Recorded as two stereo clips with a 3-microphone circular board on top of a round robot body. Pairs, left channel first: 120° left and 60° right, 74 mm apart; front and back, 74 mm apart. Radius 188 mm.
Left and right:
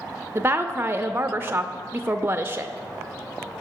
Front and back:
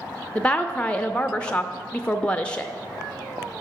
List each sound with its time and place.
0.3 s a woman speaking: 60° right, 0.7 m